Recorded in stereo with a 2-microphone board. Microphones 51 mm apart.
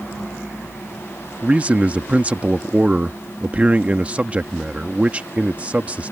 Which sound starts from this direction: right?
A man speaking, at 1.4 s.